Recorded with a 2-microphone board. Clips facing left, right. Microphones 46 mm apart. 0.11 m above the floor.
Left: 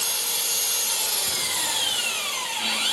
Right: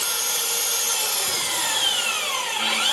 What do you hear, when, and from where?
0.0 s an engine running: 55° right (ahead or behind), 1.2 m